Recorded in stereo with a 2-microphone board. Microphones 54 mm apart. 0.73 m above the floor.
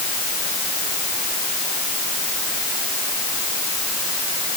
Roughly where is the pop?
I don't hear a pop.